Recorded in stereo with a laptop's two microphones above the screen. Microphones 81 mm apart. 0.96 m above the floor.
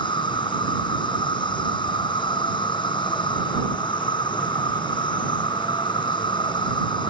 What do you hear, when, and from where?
0.0 s an insect: 70° left (ahead or behind)